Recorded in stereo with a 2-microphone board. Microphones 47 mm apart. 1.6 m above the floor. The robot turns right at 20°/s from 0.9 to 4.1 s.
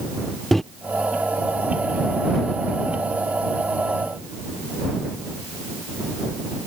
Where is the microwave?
5° left (ahead or behind).